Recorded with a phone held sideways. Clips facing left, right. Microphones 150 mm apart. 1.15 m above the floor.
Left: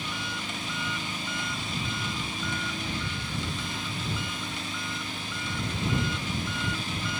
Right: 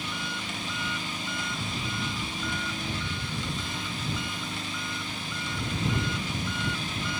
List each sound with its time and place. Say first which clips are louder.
0.0 s an engine running: even; centre (ahead or behind)